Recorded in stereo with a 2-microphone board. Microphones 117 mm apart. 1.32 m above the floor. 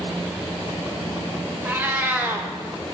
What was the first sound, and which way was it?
A cat meowing, 15° right (ahead or behind).